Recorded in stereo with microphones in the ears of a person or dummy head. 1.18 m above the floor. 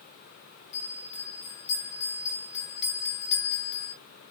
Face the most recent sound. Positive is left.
turn(degrees=35)  # may be behind; listen again after turning